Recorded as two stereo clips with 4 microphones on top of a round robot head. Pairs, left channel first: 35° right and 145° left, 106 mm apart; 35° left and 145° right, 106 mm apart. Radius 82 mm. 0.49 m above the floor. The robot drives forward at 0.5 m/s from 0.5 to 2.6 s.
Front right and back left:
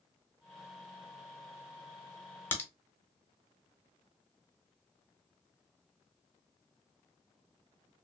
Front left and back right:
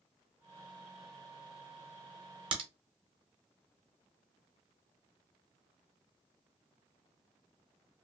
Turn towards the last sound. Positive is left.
turn(degrees=-110)